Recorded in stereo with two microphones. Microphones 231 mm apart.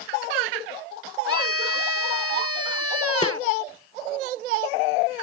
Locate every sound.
1.3 s a scream: 80° right
3.2 s a snare drum: 20° left (ahead or behind)